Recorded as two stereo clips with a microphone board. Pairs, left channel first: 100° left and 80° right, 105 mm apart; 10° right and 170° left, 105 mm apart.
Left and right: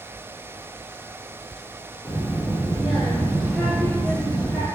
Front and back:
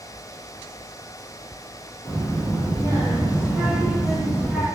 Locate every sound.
2.0 s a child speaking: 145° right, 1.6 m; by 4.7 s 80° left, 1.2 m